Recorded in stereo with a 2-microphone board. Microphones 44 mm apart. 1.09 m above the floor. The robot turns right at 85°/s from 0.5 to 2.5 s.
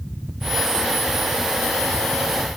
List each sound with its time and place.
Only background noise.